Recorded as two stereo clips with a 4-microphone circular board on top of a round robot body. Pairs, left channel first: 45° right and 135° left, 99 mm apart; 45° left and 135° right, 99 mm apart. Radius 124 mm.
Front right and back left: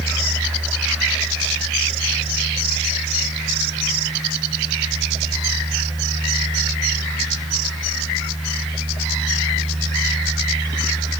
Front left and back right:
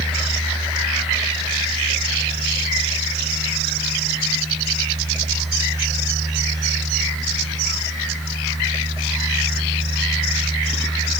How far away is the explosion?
No explosion in this recording.